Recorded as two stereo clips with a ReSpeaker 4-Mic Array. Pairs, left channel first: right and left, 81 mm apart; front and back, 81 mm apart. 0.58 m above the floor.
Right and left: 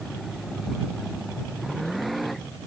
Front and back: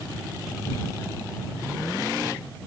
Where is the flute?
No flute in this recording.